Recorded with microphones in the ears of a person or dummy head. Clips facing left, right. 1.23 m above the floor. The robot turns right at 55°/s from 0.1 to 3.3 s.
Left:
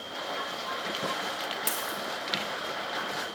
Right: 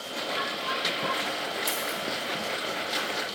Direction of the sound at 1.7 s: 20° left (ahead or behind).